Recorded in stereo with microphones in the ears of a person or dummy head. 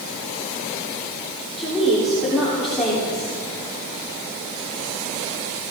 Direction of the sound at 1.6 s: 5° left (ahead or behind).